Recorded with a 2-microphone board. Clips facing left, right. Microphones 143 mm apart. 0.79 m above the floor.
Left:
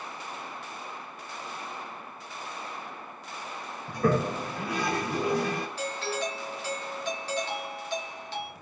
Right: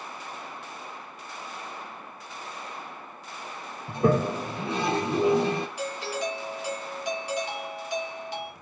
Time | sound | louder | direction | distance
3.9 | a toilet flushing | right 3 dB | 25° right (ahead or behind) | 0.6 m
5.8 | a doorbell | right 1 dB | 15° right (ahead or behind) | 0.9 m